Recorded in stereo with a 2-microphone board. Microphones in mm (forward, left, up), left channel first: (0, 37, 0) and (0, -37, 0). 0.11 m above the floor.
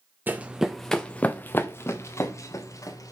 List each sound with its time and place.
0.3 s running footsteps: 25° right (ahead or behind), 0.6 m; by 3.1 s 50° left (ahead or behind), 1.7 m